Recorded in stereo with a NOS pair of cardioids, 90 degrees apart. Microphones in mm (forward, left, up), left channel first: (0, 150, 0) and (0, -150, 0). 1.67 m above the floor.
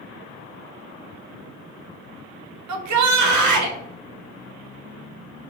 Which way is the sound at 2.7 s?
65° right.